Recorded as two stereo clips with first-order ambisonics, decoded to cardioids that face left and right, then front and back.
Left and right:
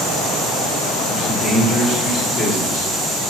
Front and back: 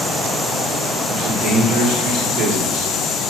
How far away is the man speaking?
About 1.3 m.